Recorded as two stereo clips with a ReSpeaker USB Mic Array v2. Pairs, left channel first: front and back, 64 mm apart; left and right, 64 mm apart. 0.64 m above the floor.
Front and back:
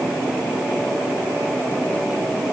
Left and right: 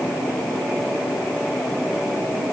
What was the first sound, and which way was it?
Only background noise.